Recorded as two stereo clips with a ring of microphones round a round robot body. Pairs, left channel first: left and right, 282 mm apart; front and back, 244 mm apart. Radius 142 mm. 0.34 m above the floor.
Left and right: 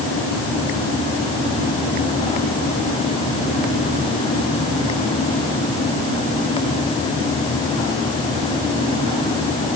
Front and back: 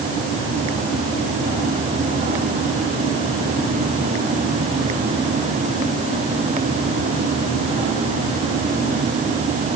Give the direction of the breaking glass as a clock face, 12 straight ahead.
I don't hear breaking glass.